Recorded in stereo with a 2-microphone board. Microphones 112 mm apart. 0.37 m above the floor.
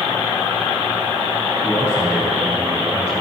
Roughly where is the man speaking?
Centre.